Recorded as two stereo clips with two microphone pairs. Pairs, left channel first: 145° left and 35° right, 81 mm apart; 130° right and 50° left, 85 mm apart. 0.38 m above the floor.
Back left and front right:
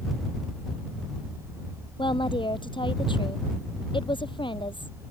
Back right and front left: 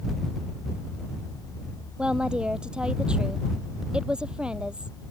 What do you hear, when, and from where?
2.0 s a woman speaking: 125° left